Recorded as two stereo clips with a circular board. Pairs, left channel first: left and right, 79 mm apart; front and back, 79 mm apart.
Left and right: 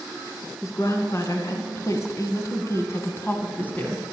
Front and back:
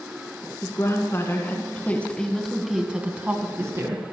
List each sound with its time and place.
0.6 s a woman speaking: 45° left, 2 m; by 4.0 s 155° left, 1.5 m